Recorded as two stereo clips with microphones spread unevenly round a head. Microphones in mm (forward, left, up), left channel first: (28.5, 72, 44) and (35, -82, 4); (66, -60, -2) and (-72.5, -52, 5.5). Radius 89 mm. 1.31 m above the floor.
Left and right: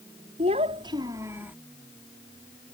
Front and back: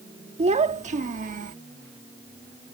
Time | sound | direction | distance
0.4 | a child speaking | 150° right | ?